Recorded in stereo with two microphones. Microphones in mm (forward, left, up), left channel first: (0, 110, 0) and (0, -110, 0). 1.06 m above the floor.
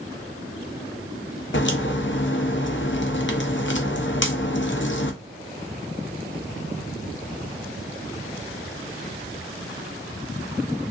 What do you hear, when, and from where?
1.5 s a crack: 60° left (ahead or behind), 0.6 m